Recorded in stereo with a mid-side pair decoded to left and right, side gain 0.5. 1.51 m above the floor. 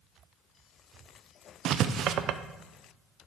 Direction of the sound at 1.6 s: 60° right.